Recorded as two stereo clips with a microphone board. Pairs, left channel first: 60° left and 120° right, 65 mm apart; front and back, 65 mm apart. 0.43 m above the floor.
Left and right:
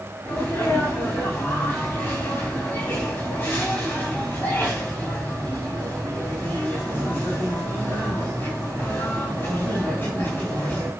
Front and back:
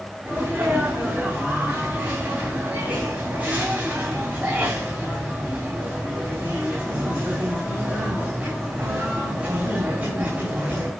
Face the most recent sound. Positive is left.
turn(degrees=115)